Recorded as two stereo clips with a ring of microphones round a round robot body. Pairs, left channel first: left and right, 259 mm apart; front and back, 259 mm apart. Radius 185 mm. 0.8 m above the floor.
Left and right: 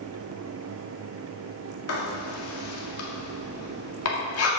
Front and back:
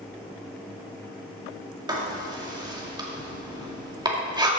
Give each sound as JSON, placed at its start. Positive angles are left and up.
{"t": 1.9, "sound": "writing", "azimuth_deg": 105, "distance_m": 1.9}